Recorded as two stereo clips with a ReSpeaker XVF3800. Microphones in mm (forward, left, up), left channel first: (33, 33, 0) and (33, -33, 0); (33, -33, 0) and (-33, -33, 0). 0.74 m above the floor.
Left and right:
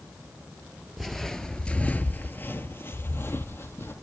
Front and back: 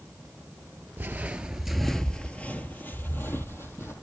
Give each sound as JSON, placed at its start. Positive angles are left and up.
{"t": 1.0, "sound": "footsteps", "azimuth_deg": 180, "distance_m": 0.8}